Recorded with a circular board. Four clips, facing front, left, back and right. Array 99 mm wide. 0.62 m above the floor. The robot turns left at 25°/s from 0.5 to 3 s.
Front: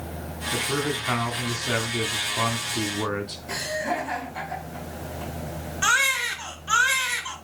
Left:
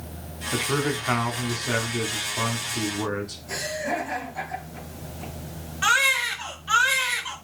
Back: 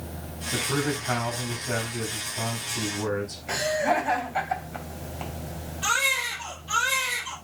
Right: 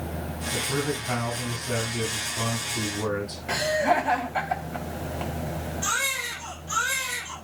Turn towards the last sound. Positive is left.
turn(degrees=45)